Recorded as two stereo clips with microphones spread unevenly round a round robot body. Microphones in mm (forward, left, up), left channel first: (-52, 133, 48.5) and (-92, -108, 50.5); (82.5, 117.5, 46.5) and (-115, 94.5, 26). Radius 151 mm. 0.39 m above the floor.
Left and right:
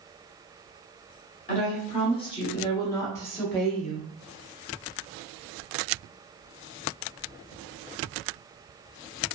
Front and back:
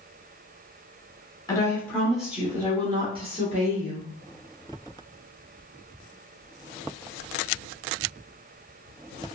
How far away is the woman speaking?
About 1.2 m.